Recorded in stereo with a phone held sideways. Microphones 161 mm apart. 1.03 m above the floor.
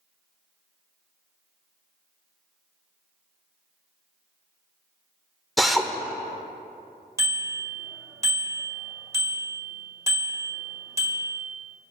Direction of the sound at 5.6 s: Centre (ahead or behind).